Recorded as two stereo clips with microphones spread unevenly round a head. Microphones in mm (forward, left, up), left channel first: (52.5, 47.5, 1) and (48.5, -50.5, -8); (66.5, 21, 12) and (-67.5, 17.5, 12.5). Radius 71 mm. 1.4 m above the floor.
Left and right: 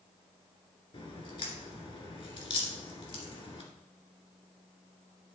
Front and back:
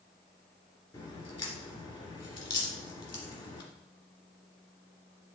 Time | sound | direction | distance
0.9 | a crack | 55° left | 2 m